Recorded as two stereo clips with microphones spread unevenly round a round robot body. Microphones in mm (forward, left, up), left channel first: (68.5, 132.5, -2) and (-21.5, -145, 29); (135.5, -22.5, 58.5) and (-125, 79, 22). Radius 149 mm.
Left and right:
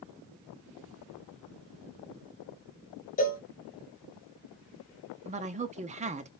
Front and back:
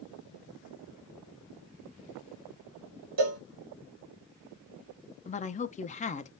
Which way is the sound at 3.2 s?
135° left.